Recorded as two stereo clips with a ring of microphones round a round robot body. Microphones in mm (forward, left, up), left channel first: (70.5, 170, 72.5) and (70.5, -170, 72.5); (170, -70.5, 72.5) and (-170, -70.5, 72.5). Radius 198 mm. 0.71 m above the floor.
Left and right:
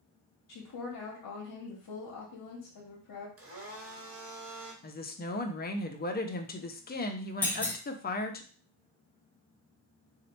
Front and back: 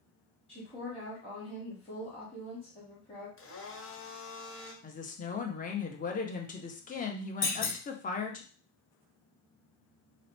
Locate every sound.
0.5 s a woman speaking: 70° left, 1.1 m
3.4 s a blender: 45° right, 1.2 m
4.8 s a woman speaking: 50° left, 0.6 m
7.4 s a clunk: 5° left, 1.7 m